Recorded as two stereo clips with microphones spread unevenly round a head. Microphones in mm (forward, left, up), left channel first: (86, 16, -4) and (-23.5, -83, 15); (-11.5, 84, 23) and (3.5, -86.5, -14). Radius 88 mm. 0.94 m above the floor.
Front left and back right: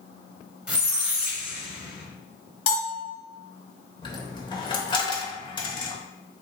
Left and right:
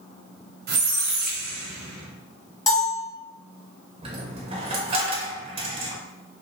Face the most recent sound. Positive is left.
turn(degrees=-20)